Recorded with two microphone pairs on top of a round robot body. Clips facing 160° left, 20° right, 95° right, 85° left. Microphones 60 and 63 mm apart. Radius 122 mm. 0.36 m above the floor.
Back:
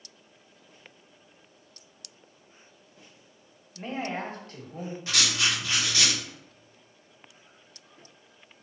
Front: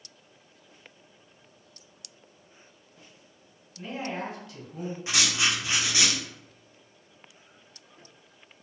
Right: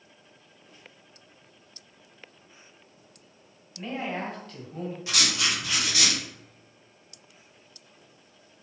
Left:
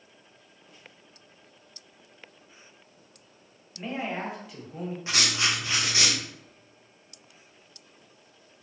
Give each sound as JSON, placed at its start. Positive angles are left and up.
{"t": 3.8, "sound": "a man speaking", "azimuth_deg": 170, "distance_m": 1.2}
{"t": 5.1, "sound": "writing", "azimuth_deg": 30, "distance_m": 1.0}